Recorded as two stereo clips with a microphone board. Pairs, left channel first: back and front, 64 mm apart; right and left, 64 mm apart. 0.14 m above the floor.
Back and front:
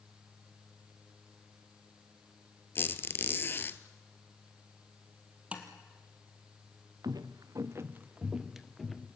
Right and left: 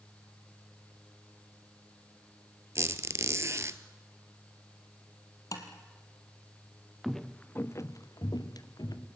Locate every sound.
2.8 s a squeak: 130° left, 0.9 m
5.5 s tapping: 65° right, 2.5 m
7.0 s footsteps: straight ahead, 1.4 m; by 9.1 s 95° right, 2.5 m